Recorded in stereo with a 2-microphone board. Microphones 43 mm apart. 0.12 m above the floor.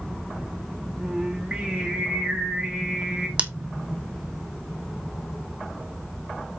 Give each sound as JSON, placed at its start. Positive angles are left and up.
{"t": 1.0, "sound": "singing", "side_deg": -20, "distance_m": 2.5}
{"t": 3.4, "sound": "scissors", "side_deg": -30, "distance_m": 1.3}